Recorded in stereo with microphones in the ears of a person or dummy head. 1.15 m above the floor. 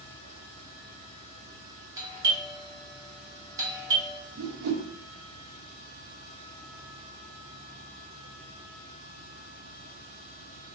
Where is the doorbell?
10° right (ahead or behind), 0.6 m.